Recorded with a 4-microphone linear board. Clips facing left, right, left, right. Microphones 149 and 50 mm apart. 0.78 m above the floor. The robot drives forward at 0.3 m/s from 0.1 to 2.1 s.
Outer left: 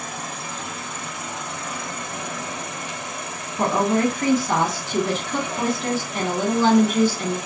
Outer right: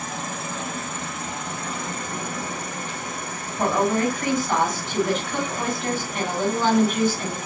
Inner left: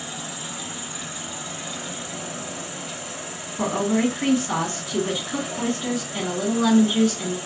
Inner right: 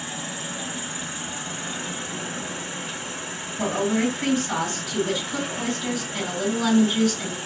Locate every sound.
0.0 s an insect: 45° right (ahead or behind), 1.0 m
3.6 s a woman speaking: 40° left (ahead or behind), 1.6 m